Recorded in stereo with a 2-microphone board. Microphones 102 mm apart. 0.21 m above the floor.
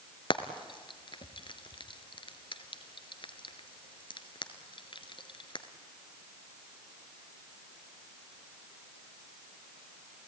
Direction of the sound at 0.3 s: 55° left (ahead or behind).